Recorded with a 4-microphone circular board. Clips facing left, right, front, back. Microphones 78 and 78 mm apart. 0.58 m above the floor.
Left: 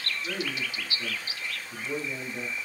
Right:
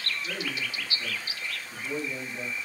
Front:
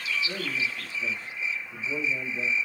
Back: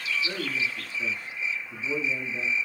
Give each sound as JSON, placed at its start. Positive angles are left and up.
{"t": 0.2, "sound": "a man speaking", "azimuth_deg": 160, "distance_m": 6.0}